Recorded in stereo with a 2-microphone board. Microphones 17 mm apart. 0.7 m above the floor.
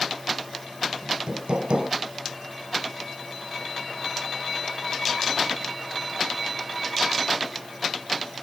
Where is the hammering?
75° right (ahead or behind).